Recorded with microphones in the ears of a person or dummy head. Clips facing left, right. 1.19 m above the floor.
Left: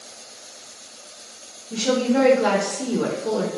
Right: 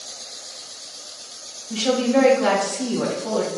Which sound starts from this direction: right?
A woman speaking, at 1.7 s.